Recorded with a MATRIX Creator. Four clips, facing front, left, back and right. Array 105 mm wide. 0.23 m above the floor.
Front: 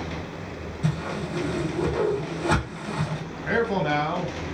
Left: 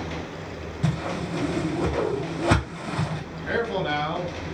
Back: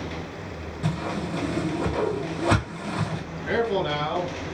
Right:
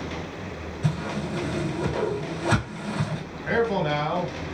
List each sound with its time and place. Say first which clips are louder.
0.8 s a whoosh: left 1 dB, back 1 dB; 115° left, 1.5 m
3.5 s a man speaking: right 2 dB, even; 35° right, 1.2 m